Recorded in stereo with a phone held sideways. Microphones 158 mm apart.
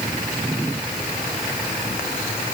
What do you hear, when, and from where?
Only background noise.